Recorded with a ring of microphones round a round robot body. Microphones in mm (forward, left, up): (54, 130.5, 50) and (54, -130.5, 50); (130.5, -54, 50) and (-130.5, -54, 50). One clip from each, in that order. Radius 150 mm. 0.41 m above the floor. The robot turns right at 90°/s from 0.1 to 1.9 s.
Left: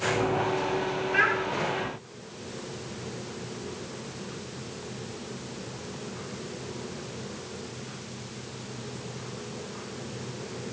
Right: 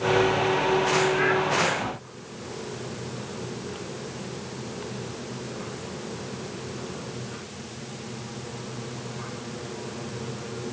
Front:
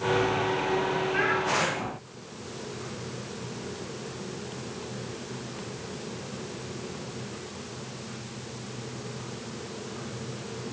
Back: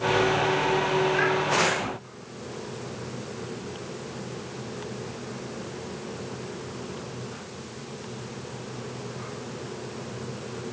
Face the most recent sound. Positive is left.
turn(degrees=165)